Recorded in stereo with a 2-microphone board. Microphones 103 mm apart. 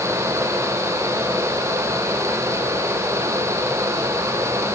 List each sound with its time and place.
Only background noise.